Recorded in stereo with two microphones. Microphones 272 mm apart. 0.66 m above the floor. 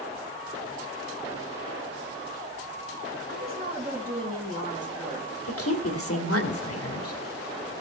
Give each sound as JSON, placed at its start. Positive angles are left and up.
{"t": 3.3, "sound": "a woman speaking", "side_deg": -40, "distance_m": 5.0}
{"t": 5.5, "sound": "a woman speaking", "side_deg": 65, "distance_m": 2.0}